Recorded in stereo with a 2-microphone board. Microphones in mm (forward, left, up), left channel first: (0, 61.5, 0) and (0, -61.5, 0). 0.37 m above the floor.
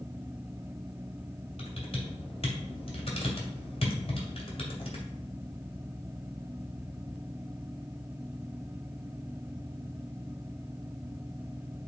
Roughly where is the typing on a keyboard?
Left.